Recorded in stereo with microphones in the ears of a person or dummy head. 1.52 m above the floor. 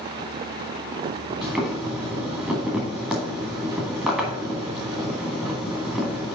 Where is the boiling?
Centre (ahead or behind), 1.8 m.